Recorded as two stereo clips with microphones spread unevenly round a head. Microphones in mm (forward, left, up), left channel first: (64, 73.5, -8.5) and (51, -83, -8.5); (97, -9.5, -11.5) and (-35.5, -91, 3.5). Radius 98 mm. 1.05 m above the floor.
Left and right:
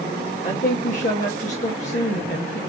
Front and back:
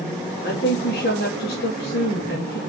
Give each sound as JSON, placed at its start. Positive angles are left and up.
{"t": 0.4, "sound": "a woman speaking", "azimuth_deg": 50, "distance_m": 1.8}